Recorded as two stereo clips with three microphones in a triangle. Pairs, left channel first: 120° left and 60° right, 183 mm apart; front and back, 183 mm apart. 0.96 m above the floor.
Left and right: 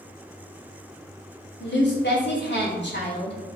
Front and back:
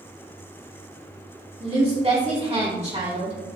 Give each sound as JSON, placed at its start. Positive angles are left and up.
{"t": 1.6, "sound": "a woman speaking", "azimuth_deg": 125, "distance_m": 2.5}